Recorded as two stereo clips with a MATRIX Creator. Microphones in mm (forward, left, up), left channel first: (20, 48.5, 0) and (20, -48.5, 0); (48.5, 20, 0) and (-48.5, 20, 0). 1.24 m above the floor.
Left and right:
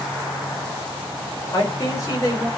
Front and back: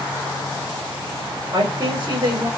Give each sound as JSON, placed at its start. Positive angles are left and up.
{"t": 1.5, "sound": "a man speaking", "azimuth_deg": 145, "distance_m": 5.0}